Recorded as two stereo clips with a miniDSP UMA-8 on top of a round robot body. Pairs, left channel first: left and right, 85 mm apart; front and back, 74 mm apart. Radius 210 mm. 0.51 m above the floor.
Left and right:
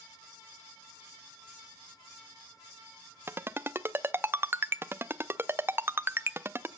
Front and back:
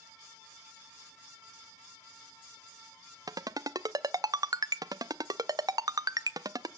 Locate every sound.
3.3 s a ringtone: 150° right, 0.8 m